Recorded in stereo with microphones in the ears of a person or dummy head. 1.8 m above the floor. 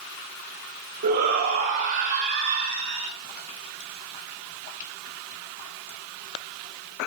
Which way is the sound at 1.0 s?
45° right (ahead or behind).